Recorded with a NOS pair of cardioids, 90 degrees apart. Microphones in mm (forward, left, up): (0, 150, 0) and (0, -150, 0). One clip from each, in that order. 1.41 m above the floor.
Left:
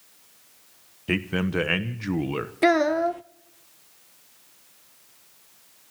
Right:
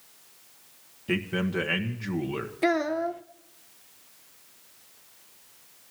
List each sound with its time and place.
1.1 s a man speaking: 30° left, 1.1 m
2.6 s a child speaking: 25° left, 0.5 m